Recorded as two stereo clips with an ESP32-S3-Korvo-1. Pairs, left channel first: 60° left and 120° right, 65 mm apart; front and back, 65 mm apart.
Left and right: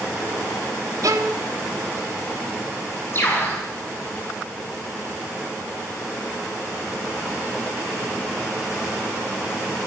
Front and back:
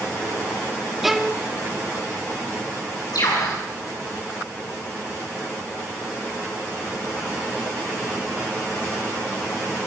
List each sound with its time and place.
1.0 s a violin: 95° right, 1.4 m
3.1 s a bird: 10° left, 8 m